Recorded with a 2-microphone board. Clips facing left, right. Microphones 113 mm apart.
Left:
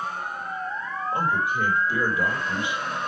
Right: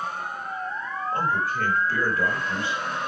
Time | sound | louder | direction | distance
1.1 | a man speaking | left 1 dB | 15° left (ahead or behind) | 3 m